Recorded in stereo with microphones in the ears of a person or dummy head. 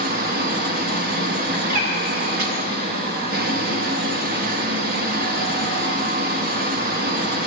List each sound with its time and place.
0.0 s a fan: 60° right (ahead or behind), 0.8 m
1.5 s a bird: 55° right (ahead or behind), 2.5 m